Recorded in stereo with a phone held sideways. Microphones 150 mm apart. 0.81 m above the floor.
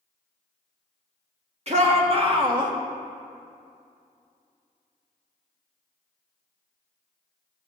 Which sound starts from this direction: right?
A shout, at 1.7 s.